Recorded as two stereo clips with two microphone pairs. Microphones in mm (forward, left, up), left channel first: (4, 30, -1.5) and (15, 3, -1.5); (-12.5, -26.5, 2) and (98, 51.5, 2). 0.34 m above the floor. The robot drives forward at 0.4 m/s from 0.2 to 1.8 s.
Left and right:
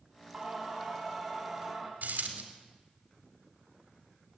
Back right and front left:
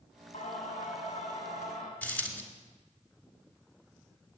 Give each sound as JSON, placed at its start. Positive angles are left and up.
{"t": 0.3, "sound": "singing", "azimuth_deg": -140, "distance_m": 2.0}
{"t": 2.0, "sound": "a dropped coin", "azimuth_deg": -65, "distance_m": 2.0}